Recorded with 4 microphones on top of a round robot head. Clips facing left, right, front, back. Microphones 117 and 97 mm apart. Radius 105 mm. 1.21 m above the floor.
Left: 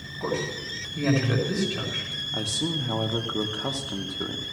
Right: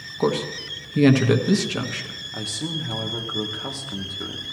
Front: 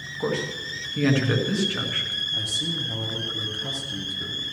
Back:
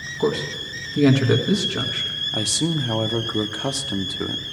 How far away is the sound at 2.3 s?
About 0.8 m.